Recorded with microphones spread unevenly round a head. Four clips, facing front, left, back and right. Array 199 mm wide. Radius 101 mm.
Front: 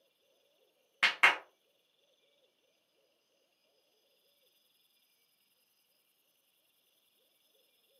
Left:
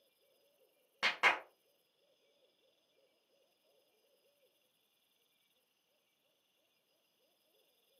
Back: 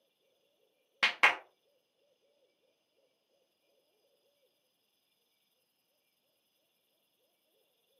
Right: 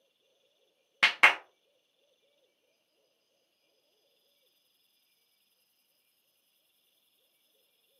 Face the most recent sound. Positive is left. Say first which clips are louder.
# right 8 dB, even
turn(degrees=-90)